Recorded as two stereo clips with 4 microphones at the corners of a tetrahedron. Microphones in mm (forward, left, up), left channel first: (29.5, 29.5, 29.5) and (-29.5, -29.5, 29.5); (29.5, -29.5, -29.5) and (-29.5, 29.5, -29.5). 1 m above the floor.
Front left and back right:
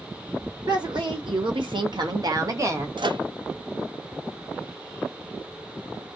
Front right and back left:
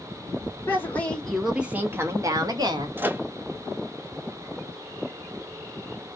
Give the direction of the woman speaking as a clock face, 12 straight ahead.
4 o'clock.